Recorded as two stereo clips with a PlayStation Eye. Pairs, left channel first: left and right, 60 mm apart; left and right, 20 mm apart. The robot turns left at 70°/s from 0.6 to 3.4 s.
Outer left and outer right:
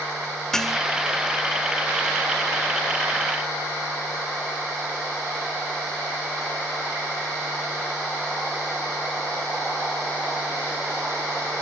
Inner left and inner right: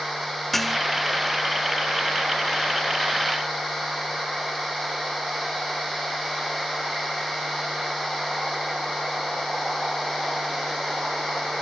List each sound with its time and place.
0.5 s dishes clattering: 10° left (ahead or behind); by 0.8 s 5° right (ahead or behind)